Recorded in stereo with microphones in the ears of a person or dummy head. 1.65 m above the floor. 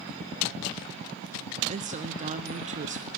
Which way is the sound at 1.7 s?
40° right (ahead or behind).